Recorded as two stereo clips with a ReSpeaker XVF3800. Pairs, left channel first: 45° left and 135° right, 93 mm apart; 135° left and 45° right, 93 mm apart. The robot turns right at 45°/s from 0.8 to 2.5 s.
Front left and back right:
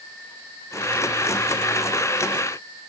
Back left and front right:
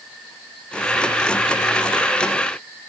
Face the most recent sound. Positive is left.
No sound to turn to.